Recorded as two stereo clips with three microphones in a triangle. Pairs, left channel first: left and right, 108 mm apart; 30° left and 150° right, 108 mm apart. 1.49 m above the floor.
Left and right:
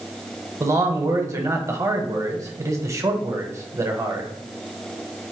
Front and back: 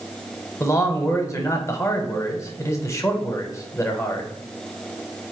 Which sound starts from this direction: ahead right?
A man speaking, at 0.6 s.